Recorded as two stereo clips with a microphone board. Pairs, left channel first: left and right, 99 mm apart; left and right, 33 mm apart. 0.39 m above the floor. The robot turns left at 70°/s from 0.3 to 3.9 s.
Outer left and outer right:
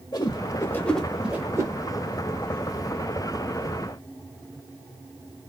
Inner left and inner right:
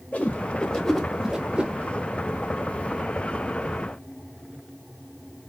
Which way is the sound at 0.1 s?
45° left (ahead or behind).